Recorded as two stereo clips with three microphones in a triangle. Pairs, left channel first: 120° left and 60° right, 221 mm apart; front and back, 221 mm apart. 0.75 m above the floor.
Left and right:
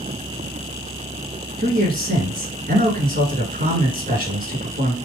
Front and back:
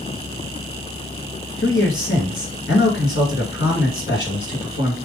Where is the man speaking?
20° right, 3 m.